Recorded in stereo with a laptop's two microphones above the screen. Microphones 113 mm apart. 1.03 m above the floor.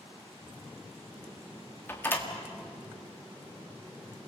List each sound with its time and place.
1.9 s a door slam: 20° left (ahead or behind), 1.7 m